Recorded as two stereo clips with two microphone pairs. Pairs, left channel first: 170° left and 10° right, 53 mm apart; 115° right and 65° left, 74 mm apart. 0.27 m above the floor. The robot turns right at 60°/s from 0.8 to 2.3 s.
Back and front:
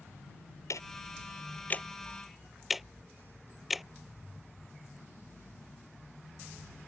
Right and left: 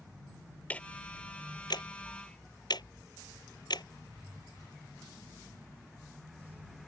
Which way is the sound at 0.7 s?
175° left.